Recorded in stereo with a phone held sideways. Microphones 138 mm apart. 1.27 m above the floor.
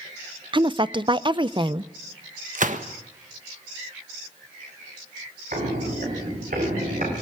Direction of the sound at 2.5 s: 70° right (ahead or behind).